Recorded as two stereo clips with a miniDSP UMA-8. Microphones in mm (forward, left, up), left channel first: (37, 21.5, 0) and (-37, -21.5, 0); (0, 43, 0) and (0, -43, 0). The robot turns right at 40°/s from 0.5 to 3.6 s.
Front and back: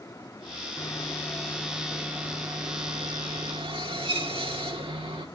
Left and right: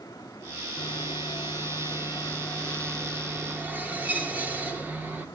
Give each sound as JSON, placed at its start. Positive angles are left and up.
{"t": 0.8, "sound": "sawing", "azimuth_deg": 85, "distance_m": 1.6}